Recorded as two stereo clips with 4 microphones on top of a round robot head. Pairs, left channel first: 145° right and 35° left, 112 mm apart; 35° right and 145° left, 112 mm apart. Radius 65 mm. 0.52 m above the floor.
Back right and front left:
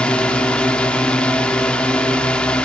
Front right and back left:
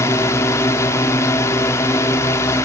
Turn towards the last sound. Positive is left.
turn(degrees=-70)